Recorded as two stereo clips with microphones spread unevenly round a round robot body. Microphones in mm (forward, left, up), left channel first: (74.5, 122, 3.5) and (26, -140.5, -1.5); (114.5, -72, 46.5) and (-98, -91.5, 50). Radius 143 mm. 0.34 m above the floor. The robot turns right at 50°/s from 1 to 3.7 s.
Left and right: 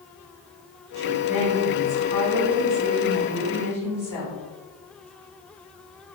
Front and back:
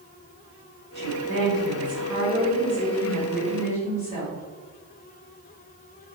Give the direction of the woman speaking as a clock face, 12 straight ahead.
6 o'clock.